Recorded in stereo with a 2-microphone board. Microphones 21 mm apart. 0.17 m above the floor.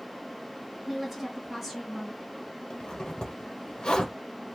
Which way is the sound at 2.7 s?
40° left (ahead or behind).